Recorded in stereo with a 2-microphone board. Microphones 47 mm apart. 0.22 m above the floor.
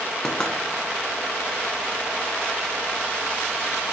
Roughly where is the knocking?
Centre.